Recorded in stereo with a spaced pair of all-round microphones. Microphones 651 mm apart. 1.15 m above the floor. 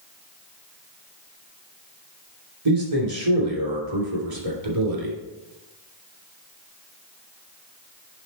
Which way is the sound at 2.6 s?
60° right (ahead or behind).